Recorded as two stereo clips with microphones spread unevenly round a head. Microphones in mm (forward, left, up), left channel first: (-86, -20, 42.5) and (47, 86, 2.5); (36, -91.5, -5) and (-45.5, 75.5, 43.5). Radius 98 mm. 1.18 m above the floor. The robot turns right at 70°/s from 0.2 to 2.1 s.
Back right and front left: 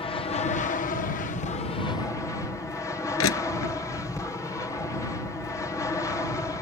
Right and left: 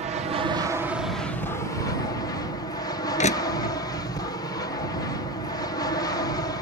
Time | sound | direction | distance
0.0 | an aircraft | 165° left | ?
3.2 | crushing | 120° right | ?